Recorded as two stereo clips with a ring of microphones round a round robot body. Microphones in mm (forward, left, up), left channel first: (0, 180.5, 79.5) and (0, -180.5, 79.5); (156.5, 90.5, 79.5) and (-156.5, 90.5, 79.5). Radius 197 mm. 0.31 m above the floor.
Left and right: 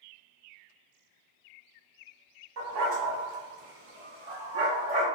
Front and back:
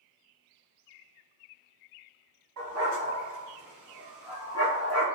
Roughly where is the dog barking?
Behind right.